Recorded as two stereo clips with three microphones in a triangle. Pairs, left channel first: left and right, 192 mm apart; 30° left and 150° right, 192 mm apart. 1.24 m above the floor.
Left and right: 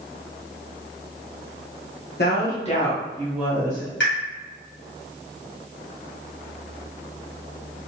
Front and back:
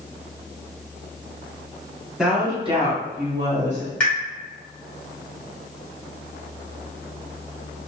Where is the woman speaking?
125° left, 1.2 m; by 3.9 s 165° right, 1.9 m.